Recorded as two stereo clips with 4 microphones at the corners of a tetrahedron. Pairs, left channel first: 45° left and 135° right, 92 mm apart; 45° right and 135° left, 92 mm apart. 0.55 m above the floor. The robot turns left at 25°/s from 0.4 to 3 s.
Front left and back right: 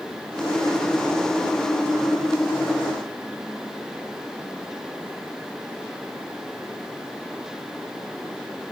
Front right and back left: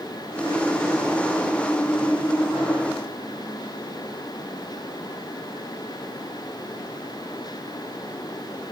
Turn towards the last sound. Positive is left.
No sound to turn to.